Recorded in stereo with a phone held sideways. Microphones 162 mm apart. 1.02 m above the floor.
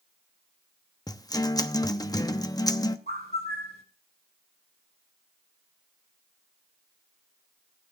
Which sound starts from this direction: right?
A bird, at 3.1 s.